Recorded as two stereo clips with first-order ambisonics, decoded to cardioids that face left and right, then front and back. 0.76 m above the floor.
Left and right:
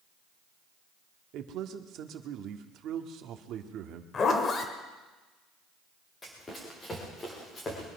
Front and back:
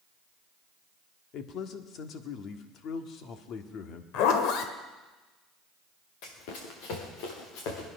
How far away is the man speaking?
About 1.3 m.